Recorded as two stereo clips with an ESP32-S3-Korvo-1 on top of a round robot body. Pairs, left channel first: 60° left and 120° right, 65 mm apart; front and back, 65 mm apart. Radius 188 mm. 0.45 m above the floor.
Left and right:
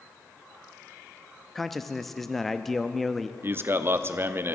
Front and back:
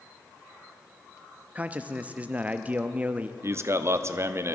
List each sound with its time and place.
1.6 s a man speaking: 145° left, 0.7 m
3.4 s a man speaking: 155° right, 1.0 m